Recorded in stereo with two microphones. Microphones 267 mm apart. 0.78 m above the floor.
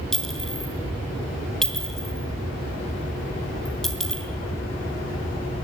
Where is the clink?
Centre (ahead or behind), 2.5 m.